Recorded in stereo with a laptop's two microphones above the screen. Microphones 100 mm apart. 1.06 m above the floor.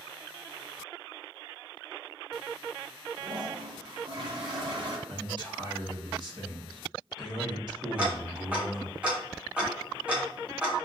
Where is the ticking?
10° right (ahead or behind), 0.8 m.